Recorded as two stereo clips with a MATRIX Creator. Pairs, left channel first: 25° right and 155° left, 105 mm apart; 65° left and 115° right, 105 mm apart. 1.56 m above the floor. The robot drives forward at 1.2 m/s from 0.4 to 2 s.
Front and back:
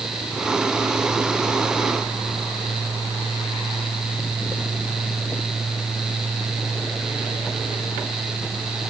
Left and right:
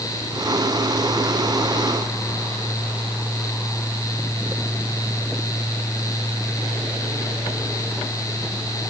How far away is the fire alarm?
I don't hear a fire alarm.